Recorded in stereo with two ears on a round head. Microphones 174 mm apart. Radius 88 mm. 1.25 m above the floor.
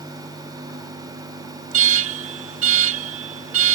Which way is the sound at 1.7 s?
65° right (ahead or behind).